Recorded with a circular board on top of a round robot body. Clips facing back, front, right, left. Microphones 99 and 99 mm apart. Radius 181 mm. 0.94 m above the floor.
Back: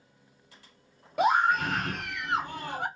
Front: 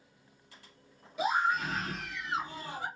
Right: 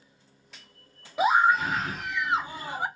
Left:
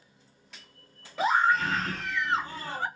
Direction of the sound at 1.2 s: 165° right.